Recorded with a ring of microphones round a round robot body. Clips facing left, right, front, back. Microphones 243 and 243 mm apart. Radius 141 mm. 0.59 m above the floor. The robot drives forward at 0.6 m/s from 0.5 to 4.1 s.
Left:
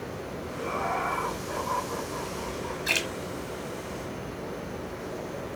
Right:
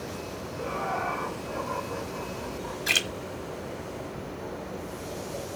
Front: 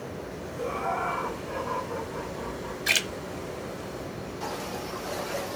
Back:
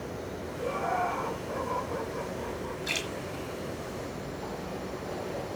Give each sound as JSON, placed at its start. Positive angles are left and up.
{"t": 0.6, "sound": "laughter", "azimuth_deg": 50, "distance_m": 6.0}
{"t": 2.9, "sound": "a splash", "azimuth_deg": -20, "distance_m": 1.4}